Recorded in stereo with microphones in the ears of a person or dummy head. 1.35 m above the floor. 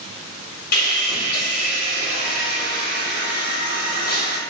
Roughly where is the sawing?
Left.